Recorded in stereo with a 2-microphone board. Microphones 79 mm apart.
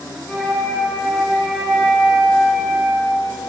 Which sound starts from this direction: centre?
A flute, at 0.3 s.